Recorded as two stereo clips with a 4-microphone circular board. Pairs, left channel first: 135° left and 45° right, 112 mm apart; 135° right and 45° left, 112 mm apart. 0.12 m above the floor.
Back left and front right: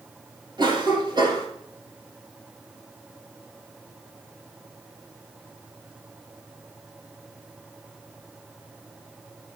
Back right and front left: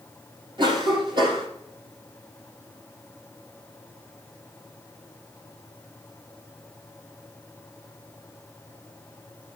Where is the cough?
5° left, 3.5 m.